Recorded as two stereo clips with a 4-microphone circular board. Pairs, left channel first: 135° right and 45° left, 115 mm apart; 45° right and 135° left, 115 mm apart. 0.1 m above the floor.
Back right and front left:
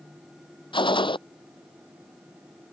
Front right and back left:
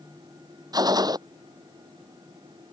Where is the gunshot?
175° right.